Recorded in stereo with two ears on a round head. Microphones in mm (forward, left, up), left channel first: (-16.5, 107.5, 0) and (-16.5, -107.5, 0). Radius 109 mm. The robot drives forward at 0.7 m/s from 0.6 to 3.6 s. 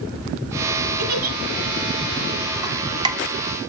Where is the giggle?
45° right (ahead or behind), 0.8 m; by 1.4 s 35° right (ahead or behind), 1.0 m.